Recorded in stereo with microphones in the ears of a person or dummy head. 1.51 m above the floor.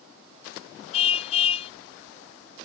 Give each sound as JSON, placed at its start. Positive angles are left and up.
{"t": 0.9, "sound": "a car horn", "side_deg": 35}